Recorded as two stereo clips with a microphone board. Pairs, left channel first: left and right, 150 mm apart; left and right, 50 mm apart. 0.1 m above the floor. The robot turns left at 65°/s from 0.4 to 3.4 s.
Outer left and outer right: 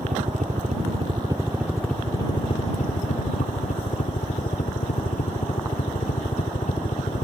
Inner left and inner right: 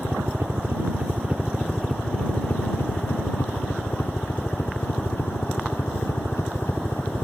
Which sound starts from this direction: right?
A helicopter, at 0.0 s.